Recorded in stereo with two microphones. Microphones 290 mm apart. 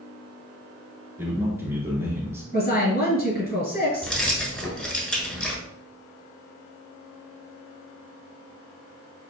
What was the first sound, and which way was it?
A man speaking, 10° right (ahead or behind).